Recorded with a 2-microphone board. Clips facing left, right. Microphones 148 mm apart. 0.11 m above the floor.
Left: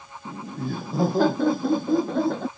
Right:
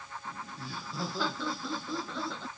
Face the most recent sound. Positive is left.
turn(degrees=60)  # may be behind; listen again after turning